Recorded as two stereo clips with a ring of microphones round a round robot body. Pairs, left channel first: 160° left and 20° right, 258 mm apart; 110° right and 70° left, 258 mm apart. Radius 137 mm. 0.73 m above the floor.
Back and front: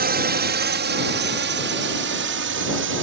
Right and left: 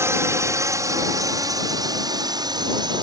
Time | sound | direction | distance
0.0 | a drone | 5° right | ?